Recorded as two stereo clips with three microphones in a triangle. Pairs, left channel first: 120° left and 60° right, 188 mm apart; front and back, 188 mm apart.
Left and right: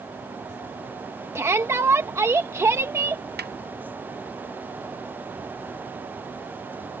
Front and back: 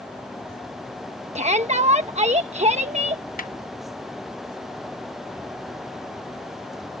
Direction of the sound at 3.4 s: 40° right.